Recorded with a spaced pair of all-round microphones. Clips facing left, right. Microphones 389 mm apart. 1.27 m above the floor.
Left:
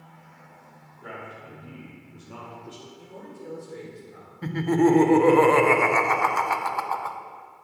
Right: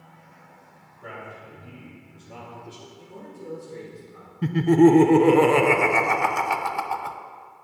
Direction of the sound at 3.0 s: 10° right (ahead or behind).